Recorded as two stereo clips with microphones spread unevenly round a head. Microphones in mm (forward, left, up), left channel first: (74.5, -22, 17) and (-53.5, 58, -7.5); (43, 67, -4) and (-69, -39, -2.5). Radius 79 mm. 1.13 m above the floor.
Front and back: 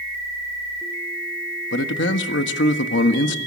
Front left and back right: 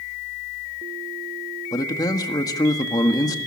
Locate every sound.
1.7 s a man speaking: 25° right, 1.5 m